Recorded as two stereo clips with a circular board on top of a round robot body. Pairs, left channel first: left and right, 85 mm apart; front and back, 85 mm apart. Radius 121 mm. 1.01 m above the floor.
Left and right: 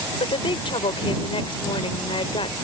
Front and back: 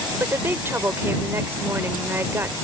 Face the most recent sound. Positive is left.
turn(degrees=115)